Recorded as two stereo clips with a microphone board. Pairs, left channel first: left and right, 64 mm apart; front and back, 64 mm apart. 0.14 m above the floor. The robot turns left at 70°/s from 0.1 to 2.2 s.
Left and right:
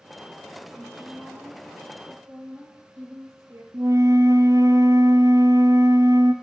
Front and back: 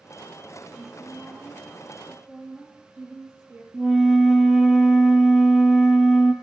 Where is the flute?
100° right, 0.7 m.